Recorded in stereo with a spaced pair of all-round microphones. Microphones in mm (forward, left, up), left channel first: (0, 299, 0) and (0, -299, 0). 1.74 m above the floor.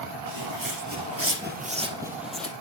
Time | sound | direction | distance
0.3 | footsteps | 40° right (ahead or behind) | 2 m